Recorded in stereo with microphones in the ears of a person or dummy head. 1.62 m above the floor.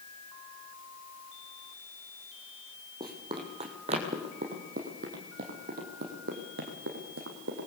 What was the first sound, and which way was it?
Running footsteps, 25° right (ahead or behind).